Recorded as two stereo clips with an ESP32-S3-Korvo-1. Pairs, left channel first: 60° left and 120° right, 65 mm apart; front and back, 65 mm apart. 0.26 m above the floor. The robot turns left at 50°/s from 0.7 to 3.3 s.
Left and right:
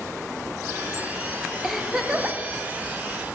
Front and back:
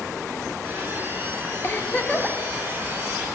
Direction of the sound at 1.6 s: 30° right.